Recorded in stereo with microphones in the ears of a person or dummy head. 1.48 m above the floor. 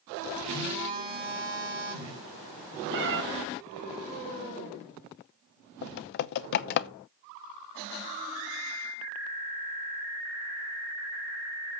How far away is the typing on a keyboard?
About 0.6 m.